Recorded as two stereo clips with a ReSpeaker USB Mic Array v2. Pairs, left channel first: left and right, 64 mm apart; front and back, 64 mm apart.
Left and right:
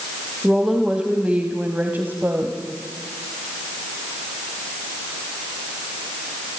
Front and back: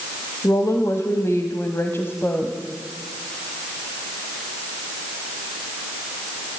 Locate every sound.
0.4 s a woman speaking: 10° right, 1.9 m; by 2.6 s 50° right, 2.0 m